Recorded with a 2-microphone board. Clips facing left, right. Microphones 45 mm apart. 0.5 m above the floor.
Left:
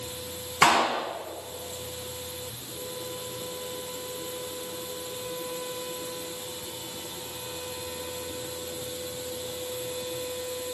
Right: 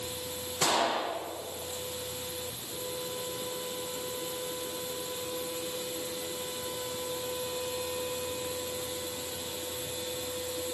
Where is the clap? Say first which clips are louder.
Left 7 dB; 75° left (ahead or behind), 5.5 m.